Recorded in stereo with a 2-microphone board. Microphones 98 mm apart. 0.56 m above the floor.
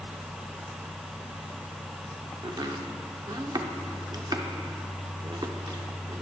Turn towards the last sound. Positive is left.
turn(degrees=-45)  # may be behind; listen again after turning